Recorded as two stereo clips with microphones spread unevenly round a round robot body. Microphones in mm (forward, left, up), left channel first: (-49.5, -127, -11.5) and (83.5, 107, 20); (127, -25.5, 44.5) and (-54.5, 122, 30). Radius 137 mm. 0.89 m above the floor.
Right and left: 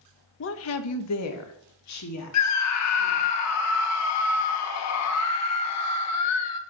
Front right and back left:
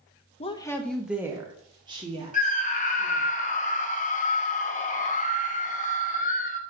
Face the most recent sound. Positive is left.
turn(degrees=-100)